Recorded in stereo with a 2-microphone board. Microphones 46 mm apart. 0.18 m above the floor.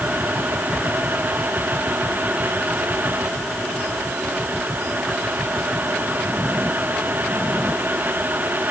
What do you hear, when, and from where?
Only background noise.